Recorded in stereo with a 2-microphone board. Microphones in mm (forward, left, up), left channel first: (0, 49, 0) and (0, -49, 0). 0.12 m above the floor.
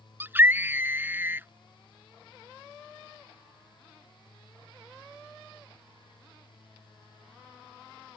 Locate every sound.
0.2 s a scream: 20° right (ahead or behind)